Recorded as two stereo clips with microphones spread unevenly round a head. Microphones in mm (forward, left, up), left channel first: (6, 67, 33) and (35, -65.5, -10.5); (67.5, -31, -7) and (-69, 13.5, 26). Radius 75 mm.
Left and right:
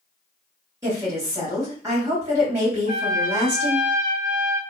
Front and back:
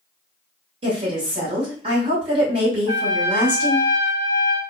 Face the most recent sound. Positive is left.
turn(degrees=-140)